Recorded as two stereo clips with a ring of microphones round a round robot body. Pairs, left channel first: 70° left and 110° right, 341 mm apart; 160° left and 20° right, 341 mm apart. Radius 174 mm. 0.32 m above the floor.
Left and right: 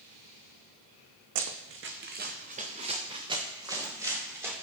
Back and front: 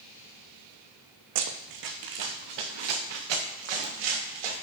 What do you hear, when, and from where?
1.4 s running footsteps: 70° right, 1.2 m; by 4.5 s 30° right, 3.5 m